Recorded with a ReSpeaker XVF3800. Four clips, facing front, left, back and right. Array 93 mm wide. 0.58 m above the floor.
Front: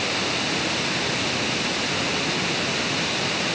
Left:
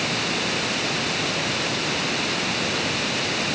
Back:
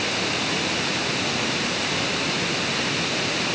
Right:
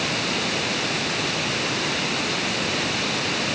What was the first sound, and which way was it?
Only background noise.